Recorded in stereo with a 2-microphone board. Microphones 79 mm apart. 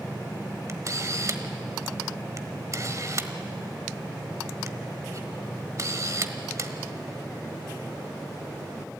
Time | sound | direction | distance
0.7 | a camera shutter | 45° right (ahead or behind) | 1.2 m